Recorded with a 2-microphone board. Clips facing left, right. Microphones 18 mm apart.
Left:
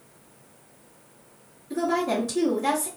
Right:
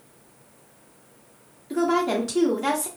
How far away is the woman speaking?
About 1.3 m.